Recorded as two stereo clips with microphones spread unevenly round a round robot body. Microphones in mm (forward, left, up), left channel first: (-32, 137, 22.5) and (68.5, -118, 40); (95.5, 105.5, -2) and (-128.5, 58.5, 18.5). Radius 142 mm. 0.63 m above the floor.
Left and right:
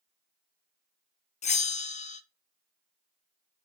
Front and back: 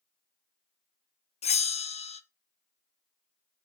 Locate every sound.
1.4 s a bell: 60° left, 0.6 m